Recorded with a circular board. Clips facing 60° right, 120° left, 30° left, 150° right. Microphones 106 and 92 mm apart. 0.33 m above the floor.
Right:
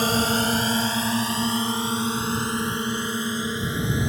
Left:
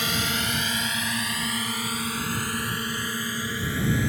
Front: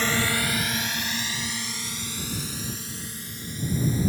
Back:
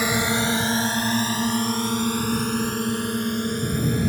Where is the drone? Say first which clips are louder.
Right 7 dB, back 3 dB; 75° right; by 4.1 s 130° right.